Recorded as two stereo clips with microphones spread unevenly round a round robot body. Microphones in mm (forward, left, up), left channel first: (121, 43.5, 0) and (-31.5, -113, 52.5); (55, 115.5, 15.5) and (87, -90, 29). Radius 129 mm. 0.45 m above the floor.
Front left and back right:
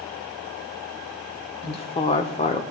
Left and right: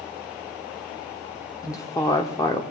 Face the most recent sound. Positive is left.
turn(degrees=40)